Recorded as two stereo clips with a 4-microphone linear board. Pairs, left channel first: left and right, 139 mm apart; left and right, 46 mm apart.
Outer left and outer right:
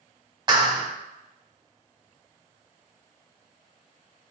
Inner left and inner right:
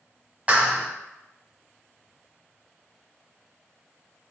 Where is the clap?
30° right (ahead or behind), 1.3 m.